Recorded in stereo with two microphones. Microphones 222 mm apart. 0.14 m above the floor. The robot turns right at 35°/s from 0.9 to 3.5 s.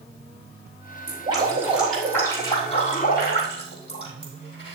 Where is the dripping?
30° right, 5.5 m; by 4.8 s 55° left, 5.5 m.